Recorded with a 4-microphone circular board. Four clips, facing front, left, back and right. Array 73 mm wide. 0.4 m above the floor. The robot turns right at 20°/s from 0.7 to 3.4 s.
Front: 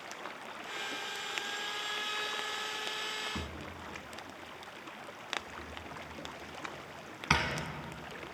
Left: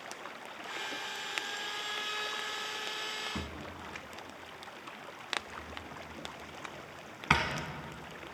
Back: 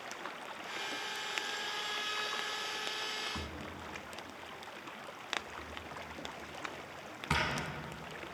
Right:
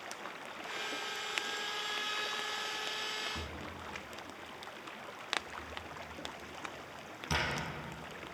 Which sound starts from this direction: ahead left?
A drawer, at 3.4 s.